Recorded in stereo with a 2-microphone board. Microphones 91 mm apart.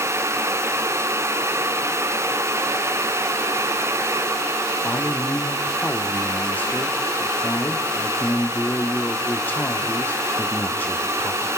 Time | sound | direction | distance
4.8 | a man speaking | 20° left (ahead or behind) | 1.0 m